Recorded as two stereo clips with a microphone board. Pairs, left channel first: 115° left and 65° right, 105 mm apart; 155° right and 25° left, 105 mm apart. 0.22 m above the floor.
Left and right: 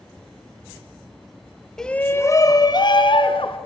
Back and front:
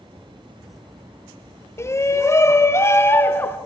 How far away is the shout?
About 1.0 m.